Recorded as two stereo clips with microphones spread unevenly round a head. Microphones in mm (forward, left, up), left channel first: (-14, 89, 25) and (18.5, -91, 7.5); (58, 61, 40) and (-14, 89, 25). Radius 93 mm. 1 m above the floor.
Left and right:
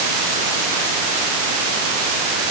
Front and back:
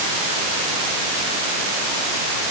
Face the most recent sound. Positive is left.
No sound to turn to.